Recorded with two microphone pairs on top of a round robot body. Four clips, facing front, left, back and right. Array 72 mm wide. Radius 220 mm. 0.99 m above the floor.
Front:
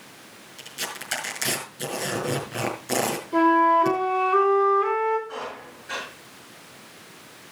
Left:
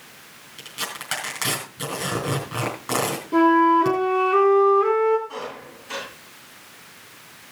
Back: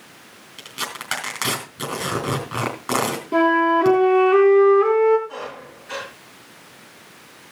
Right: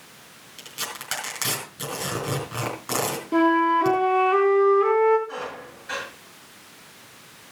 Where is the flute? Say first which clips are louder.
Left 3 dB, back 1 dB; 155° right, 4 m.